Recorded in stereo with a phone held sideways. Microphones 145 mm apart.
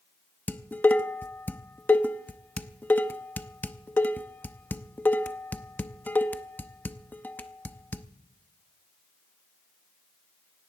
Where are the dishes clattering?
15° left (ahead or behind), 0.6 m.